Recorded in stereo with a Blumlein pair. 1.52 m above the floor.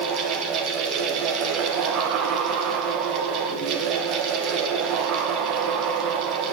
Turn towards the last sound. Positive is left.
turn(degrees=-35)